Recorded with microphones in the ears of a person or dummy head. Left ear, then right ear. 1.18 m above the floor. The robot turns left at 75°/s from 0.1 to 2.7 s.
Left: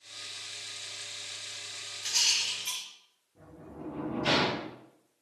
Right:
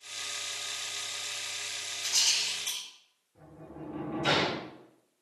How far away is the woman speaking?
No woman speaking in this recording.